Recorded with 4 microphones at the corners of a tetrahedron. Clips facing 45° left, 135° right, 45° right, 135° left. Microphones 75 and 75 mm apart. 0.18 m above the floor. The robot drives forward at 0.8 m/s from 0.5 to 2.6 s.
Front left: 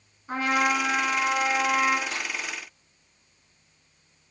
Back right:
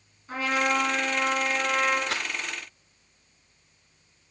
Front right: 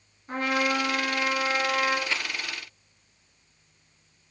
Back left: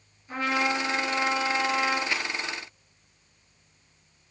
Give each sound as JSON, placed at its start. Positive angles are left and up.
{"t": 0.3, "sound": "a trumpet", "azimuth_deg": -5, "distance_m": 2.5}
{"t": 2.1, "sound": "a rattle", "azimuth_deg": -145, "distance_m": 0.6}